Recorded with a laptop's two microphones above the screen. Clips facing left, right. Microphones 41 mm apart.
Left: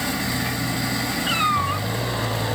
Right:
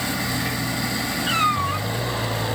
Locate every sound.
1.3 s a cat meowing: 5° left (ahead or behind), 2.5 m